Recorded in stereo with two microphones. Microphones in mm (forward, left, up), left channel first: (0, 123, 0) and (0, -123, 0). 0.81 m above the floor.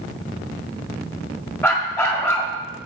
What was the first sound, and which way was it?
A dog barking, 10° left (ahead or behind).